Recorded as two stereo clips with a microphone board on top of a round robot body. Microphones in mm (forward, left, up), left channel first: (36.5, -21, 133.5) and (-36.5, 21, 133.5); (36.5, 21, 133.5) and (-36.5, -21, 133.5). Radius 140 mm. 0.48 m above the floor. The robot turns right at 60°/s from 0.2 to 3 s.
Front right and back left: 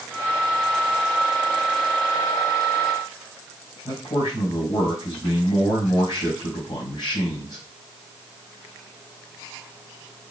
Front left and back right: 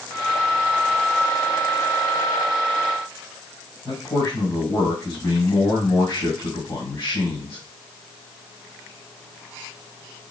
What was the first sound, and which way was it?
A man speaking, 25° right.